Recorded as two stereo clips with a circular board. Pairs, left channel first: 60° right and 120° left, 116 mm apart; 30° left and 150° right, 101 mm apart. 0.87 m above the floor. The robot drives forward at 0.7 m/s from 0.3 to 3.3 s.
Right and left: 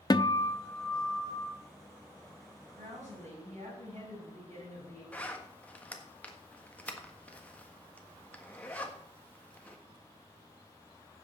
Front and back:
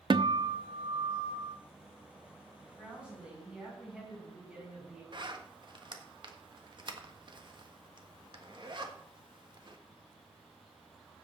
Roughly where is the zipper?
Behind right.